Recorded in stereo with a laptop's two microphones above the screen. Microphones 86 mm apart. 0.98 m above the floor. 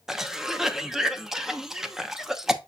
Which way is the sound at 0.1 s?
5° right (ahead or behind).